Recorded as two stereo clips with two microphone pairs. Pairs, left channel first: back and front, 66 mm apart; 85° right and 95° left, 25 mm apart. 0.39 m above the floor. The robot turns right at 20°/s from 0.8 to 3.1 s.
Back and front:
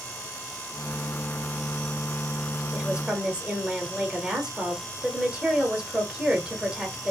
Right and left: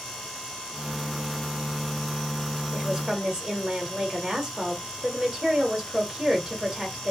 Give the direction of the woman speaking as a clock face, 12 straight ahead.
10 o'clock.